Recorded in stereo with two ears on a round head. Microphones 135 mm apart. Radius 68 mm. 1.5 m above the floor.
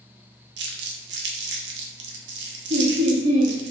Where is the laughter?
50° right (ahead or behind), 0.7 m.